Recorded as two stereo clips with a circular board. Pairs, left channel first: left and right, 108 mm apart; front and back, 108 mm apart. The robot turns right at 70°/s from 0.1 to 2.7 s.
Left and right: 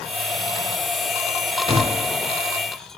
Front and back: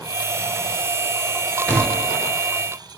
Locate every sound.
1.7 s a gunshot: 80° right, 6 m; by 2.2 s 50° right, 6 m